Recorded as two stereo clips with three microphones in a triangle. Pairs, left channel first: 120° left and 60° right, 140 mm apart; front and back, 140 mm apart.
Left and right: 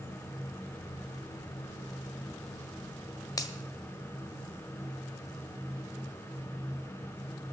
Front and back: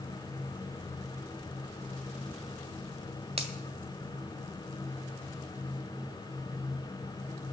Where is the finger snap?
175° left, 1.4 m.